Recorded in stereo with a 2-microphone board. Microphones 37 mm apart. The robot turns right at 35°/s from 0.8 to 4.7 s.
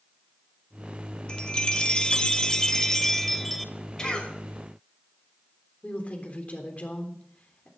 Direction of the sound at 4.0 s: 15° left (ahead or behind).